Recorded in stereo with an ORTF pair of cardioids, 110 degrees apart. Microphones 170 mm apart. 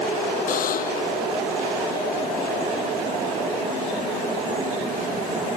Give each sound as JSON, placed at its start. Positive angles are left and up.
{"t": 0.5, "sound": "a buzzer", "azimuth_deg": 55}